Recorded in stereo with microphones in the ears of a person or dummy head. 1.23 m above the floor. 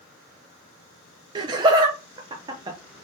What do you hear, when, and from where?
1.4 s laughter: 25° right (ahead or behind), 0.6 m